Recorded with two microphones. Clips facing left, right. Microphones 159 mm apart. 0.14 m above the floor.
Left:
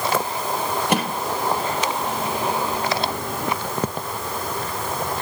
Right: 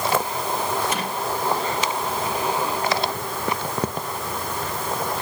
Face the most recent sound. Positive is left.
turn(degrees=70)  # may be behind; listen again after turning